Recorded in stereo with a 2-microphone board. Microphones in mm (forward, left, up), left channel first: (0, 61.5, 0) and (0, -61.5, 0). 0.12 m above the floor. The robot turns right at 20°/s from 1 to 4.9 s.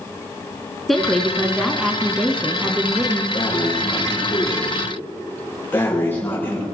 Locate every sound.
0.9 s a woman speaking: centre (ahead or behind), 1.2 m; by 3.2 s 15° right (ahead or behind), 1.2 m
3.3 s breathing: 130° left, 7 m; by 6.6 s 160° left, 7 m